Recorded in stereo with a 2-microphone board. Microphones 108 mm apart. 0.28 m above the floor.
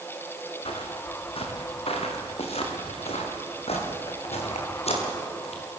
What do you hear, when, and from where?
0.7 s footsteps: 65° left (ahead or behind), 4.5 m; by 5.6 s 85° left, 7.5 m